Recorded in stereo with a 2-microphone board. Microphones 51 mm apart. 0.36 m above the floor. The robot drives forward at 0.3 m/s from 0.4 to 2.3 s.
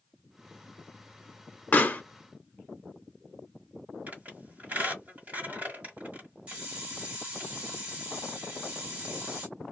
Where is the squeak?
35° right (ahead or behind), 1.7 m.